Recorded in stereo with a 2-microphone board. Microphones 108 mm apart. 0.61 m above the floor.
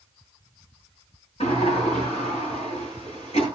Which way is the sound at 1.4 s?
70° left (ahead or behind).